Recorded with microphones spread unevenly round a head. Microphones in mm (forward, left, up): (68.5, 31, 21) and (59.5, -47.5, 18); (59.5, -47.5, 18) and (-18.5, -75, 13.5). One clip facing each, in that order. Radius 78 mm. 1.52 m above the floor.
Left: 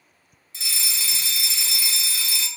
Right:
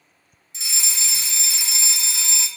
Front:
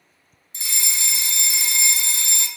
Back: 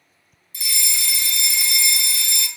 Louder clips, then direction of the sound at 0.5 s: Even, back 1 dB; 35° right.